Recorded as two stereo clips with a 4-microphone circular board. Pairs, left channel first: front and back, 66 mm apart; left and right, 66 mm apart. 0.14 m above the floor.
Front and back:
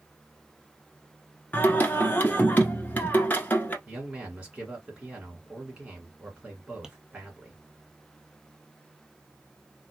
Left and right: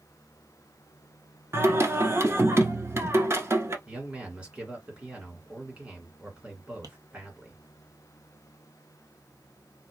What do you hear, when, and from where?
1.5 s singing: 55° right, 1.0 m
3.9 s a man speaking: 140° right, 1.7 m
6.8 s tapping: 100° right, 1.1 m